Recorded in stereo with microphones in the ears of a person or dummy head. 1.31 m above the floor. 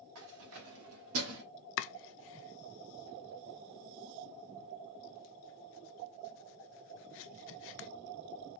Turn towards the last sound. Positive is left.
turn(degrees=60)  # may be behind; listen again after turning